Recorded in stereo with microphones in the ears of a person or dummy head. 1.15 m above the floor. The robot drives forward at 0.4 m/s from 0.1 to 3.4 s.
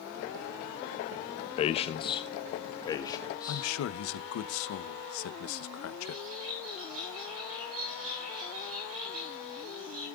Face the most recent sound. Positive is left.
turn(degrees=-75)  # may be behind; listen again after turning